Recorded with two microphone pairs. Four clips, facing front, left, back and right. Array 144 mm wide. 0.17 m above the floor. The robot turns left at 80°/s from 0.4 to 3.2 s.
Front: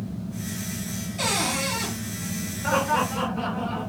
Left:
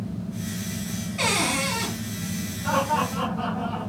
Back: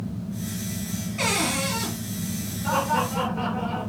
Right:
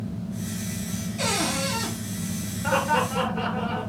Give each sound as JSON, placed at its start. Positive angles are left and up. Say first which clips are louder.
{"t": 1.2, "sound": "a cupboard door", "louder": "left 2 dB, back 1 dB", "azimuth_deg": 130, "distance_m": 3.5}
{"t": 2.6, "sound": "laughter", "louder": "even, front 1 dB", "azimuth_deg": -40, "distance_m": 2.5}